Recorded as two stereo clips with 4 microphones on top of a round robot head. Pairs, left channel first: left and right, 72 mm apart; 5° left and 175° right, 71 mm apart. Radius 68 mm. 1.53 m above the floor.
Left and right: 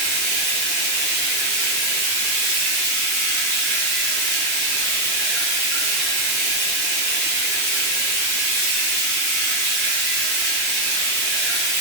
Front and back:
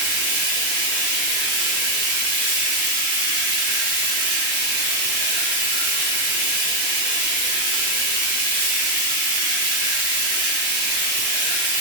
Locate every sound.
0.0 s running water: straight behind, 1.9 m